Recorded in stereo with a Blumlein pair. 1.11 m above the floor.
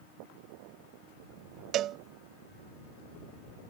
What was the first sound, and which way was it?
A cowbell, 30° right.